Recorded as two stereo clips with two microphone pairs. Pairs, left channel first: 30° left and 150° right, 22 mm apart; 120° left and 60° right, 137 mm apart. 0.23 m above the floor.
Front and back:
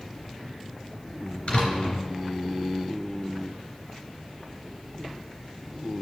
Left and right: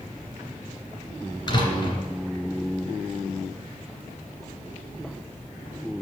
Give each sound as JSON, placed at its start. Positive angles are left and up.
{"t": 1.5, "sound": "a door slam", "azimuth_deg": 60, "distance_m": 2.5}